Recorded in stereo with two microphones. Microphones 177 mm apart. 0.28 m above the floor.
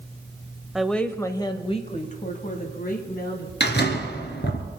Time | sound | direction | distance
0.8 | a woman speaking | 5° right (ahead or behind) | 1.0 m
3.6 | a door slam | 75° left (ahead or behind) | 2.5 m